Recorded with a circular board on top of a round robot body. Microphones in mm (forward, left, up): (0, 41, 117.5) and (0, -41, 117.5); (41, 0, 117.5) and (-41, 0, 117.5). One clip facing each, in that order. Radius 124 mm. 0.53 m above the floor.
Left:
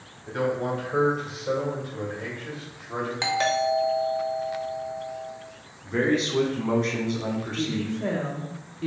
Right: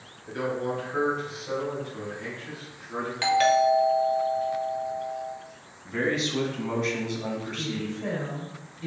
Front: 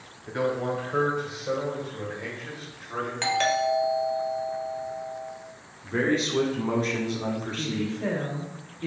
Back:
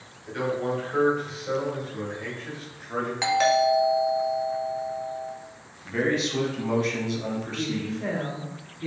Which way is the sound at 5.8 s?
50° left.